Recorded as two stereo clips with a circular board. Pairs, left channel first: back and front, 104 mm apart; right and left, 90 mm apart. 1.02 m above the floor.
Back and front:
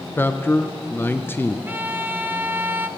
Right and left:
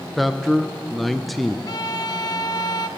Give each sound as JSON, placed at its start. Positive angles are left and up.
{"t": 0.2, "sound": "a man speaking", "azimuth_deg": -175, "distance_m": 0.6}
{"t": 1.7, "sound": "a violin", "azimuth_deg": -65, "distance_m": 0.5}